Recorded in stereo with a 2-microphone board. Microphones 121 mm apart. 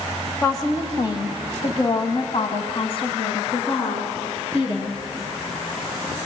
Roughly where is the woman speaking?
Left.